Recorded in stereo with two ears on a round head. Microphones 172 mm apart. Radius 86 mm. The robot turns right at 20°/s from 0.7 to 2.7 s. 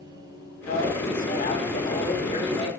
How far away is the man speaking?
About 4 m.